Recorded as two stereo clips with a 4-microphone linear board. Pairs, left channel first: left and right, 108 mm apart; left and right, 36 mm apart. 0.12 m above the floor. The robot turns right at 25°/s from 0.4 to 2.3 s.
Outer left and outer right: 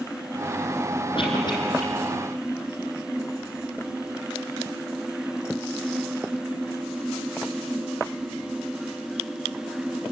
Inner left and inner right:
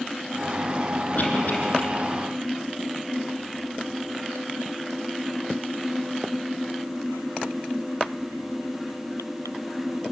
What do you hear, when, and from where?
1.1 s a cough: 50° left (ahead or behind), 4.5 m; by 1.8 s 35° left (ahead or behind), 4.5 m